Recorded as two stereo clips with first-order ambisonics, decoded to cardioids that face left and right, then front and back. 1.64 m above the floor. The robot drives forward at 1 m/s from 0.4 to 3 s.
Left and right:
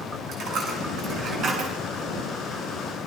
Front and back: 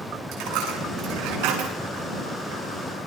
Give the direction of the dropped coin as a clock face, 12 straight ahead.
5 o'clock.